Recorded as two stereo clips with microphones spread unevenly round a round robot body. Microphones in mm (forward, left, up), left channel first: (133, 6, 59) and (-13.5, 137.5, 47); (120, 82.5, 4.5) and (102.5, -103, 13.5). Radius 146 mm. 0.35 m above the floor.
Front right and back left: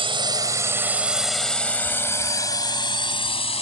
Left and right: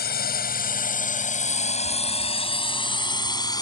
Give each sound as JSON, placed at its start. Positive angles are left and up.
{"t": 0.0, "sound": "a drone", "azimuth_deg": 85}